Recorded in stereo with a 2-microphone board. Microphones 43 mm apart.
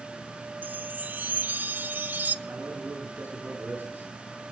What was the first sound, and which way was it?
A chime, 45° right (ahead or behind).